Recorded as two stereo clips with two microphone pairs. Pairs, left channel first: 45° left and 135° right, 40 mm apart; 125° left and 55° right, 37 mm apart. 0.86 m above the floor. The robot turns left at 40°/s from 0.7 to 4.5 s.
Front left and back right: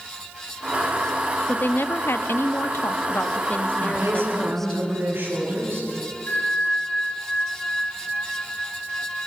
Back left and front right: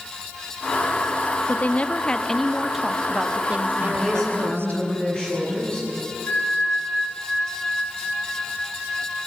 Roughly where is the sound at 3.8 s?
Behind right.